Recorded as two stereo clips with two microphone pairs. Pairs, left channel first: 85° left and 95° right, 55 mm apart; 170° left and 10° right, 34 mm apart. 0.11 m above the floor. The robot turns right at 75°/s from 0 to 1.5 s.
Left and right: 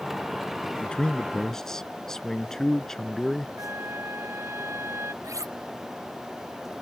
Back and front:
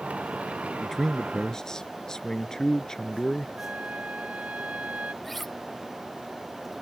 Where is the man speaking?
95° left; by 3.5 s 150° left.